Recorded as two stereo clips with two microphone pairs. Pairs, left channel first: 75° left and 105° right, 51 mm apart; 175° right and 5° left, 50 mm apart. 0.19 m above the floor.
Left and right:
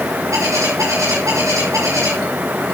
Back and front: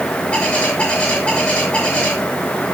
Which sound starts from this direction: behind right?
A bird, at 0.3 s.